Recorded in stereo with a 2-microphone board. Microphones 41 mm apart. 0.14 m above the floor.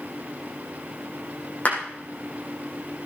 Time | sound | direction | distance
1.6 | a clap | 35° left (ahead or behind) | 7 m